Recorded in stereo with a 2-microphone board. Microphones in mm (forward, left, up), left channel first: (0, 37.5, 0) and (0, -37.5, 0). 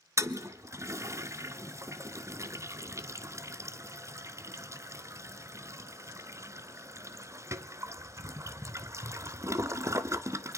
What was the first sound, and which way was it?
A toilet flushing, 40° right (ahead or behind).